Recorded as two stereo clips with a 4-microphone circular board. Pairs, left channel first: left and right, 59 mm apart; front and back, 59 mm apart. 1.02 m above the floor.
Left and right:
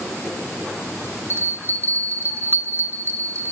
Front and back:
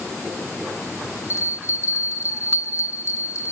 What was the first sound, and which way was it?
A bell, 35° right.